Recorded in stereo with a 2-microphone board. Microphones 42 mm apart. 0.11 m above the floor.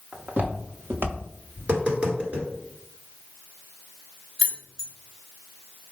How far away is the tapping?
About 1.6 m.